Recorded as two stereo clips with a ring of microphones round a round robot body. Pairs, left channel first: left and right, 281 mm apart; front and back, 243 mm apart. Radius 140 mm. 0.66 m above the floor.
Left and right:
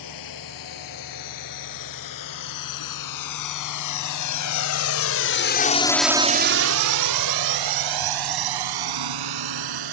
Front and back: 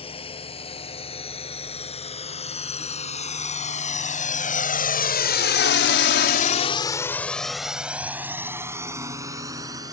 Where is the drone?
70° left; by 9.9 s 100° right.